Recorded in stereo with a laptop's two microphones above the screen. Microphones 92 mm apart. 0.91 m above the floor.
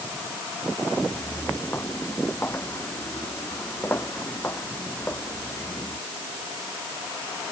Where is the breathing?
I don't hear breathing.